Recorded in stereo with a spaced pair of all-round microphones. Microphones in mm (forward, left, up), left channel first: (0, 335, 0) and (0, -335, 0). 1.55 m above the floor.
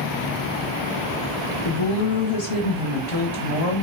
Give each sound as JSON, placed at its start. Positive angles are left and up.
{"t": 1.6, "sound": "a woman speaking", "side_deg": 60, "distance_m": 0.8}